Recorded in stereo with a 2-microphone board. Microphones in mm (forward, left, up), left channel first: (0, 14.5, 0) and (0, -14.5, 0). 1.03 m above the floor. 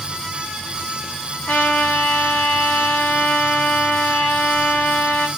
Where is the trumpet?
70° left (ahead or behind), 1.0 m.